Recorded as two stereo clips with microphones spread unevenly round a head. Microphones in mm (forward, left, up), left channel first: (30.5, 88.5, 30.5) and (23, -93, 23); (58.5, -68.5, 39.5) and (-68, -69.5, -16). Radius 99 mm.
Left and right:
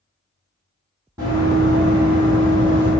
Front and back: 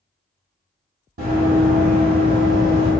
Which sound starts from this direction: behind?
Running footsteps, at 1.2 s.